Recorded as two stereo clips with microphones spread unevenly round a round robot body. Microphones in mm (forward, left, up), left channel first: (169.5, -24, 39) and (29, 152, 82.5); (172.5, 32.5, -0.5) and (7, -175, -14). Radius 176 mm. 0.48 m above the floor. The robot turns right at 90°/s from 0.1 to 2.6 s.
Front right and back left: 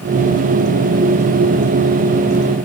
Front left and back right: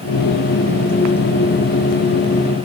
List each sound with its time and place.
Only background noise.